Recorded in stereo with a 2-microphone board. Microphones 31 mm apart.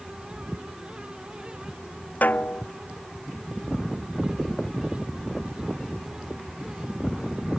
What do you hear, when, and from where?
2.2 s a snare drum: 65° left (ahead or behind)